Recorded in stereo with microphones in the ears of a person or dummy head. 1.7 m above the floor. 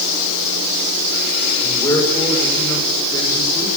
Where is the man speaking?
20° left (ahead or behind), 7 m.